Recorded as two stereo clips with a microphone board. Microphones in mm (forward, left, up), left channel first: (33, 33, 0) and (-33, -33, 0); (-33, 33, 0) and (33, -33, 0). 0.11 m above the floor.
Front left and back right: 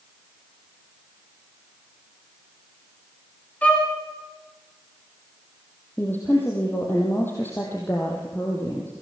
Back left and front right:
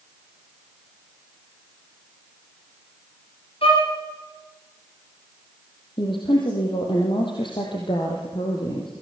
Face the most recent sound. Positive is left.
turn(degrees=110)